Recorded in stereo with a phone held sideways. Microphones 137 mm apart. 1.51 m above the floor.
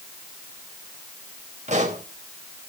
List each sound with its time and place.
1.7 s a pop: 60° right (ahead or behind), 4.5 m